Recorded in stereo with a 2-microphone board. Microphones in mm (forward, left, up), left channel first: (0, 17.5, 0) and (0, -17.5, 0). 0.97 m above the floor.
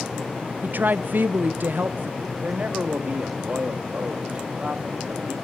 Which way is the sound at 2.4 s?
45° right (ahead or behind).